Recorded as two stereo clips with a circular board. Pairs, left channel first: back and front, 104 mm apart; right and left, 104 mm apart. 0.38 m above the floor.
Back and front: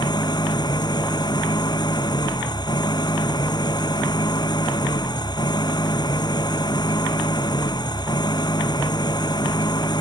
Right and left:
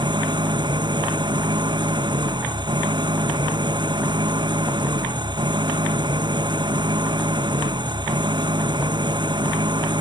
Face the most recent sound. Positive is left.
turn(degrees=135)